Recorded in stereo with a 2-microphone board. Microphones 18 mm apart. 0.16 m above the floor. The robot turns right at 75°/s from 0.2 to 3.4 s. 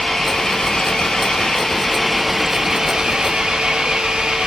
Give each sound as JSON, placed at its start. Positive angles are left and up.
{"t": 0.0, "sound": "an engine running", "azimuth_deg": 25, "distance_m": 3.0}